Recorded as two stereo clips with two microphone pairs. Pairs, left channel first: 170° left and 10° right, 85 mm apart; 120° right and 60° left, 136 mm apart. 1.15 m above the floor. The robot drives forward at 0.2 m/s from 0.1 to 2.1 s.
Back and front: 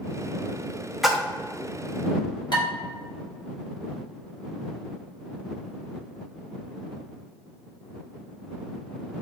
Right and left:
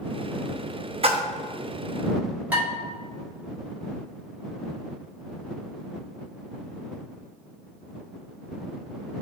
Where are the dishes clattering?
140° left, 1.8 m.